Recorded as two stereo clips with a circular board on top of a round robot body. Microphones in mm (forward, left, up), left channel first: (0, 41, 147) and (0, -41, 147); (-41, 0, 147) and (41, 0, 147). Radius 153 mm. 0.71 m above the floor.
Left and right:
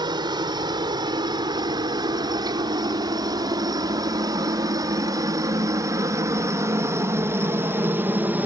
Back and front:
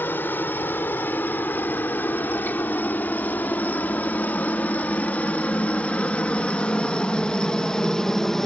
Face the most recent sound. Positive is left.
turn(degrees=-105)